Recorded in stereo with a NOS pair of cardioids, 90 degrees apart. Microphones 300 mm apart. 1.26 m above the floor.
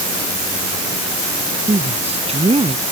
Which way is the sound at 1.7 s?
20° right.